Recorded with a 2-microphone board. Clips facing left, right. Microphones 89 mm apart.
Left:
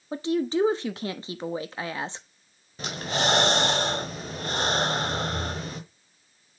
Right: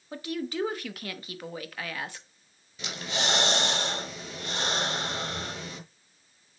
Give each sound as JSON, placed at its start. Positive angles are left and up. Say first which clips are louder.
{"t": 0.1, "sound": "a woman speaking", "louder": "left 8 dB", "side_deg": 25, "distance_m": 0.8}
{"t": 2.8, "sound": "breathing", "louder": "left 5 dB", "side_deg": 40, "distance_m": 1.2}